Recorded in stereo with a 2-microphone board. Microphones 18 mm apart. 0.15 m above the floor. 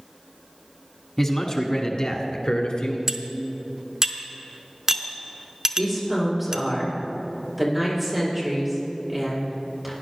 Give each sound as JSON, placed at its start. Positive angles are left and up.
{"t": 1.2, "sound": "a man speaking", "side_deg": 15, "distance_m": 1.0}
{"t": 3.1, "sound": "cutlery clinking", "side_deg": -25, "distance_m": 0.8}
{"t": 5.8, "sound": "a woman speaking", "side_deg": -15, "distance_m": 4.5}